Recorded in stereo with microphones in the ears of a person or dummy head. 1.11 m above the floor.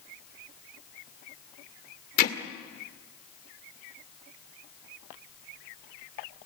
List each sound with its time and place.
2.2 s hammering: 50° left (ahead or behind), 1.9 m